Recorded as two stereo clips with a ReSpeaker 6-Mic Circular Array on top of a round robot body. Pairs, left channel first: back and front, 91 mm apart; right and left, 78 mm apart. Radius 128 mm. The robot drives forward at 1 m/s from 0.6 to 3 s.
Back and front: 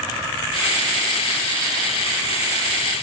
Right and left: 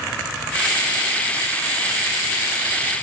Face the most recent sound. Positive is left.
No sound to turn to.